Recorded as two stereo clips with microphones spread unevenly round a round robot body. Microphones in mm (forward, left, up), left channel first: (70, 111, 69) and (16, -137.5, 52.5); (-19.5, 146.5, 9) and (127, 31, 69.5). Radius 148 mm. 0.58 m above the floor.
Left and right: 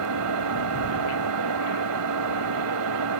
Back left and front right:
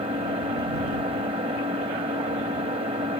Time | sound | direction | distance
0.0 | an engine running | 110° right | ?